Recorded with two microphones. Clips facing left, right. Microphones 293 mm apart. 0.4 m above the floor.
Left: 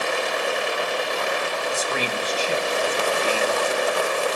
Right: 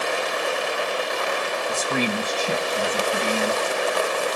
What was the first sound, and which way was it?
A man speaking, 65° right (ahead or behind).